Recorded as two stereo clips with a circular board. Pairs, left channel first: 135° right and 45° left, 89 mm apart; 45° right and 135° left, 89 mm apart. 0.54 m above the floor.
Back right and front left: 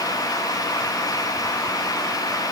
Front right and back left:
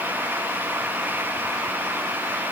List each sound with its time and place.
Only background noise.